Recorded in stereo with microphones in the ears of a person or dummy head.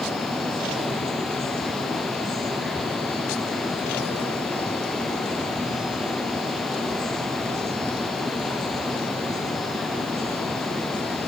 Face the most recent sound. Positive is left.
No sound to turn to.